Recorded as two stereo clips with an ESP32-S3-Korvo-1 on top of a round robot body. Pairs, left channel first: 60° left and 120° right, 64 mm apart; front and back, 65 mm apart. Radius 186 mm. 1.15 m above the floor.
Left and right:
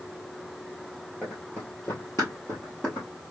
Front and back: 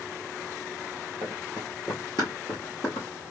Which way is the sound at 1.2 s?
150° left.